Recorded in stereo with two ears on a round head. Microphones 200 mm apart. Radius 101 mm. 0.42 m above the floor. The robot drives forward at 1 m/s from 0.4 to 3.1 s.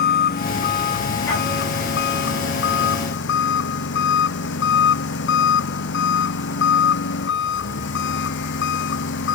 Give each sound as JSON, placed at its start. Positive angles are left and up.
{"t": 0.0, "sound": "an engine running", "side_deg": 45}